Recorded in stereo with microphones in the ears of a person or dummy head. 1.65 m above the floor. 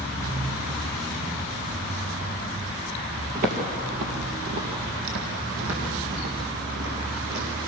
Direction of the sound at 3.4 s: 45° right (ahead or behind).